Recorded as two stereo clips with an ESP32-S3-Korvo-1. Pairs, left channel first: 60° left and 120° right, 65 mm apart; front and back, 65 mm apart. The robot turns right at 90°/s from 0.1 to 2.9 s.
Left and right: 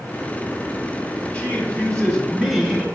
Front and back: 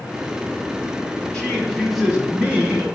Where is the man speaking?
45° left, 1.0 m; by 2.9 s straight behind, 1.0 m.